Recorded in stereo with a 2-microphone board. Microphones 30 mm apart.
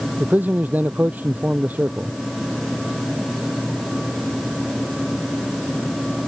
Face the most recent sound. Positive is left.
turn(degrees=-70)  # may be behind; listen again after turning